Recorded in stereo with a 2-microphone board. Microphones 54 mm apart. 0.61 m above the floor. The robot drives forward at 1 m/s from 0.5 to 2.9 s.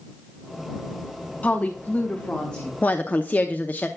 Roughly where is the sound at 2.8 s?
Left.